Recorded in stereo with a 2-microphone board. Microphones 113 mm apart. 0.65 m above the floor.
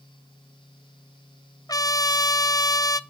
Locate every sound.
1.7 s a trumpet: 30° left (ahead or behind), 0.6 m